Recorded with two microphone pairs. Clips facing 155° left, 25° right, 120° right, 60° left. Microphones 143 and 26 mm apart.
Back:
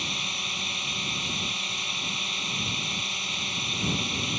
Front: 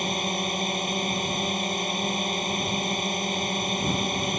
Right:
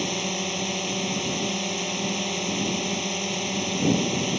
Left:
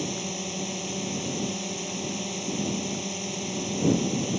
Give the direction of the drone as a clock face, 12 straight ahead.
2 o'clock.